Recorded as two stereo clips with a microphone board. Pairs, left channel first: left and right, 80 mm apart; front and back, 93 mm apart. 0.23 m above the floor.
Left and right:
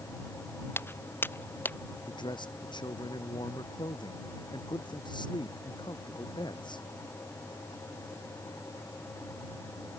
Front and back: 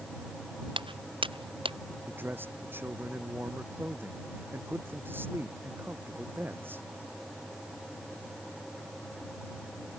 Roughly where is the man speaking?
Left.